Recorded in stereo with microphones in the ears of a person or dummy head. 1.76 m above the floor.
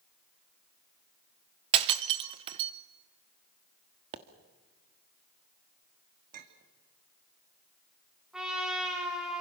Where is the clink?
45° right (ahead or behind), 2.5 m.